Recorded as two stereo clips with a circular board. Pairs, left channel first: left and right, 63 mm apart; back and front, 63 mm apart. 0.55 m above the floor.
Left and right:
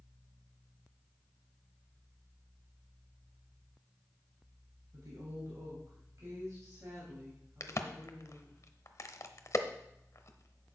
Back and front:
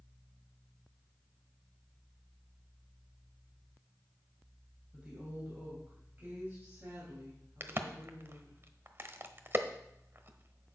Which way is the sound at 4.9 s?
70° right.